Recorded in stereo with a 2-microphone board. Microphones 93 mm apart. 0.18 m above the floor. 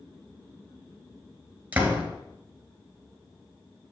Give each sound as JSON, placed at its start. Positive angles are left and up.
{"t": 1.7, "sound": "a door slam", "side_deg": -15, "distance_m": 2.5}